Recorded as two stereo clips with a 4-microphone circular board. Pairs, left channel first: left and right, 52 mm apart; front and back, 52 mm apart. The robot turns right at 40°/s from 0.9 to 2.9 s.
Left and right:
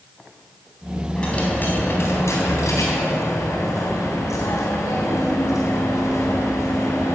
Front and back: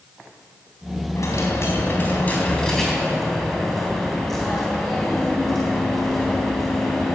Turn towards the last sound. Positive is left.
turn(degrees=85)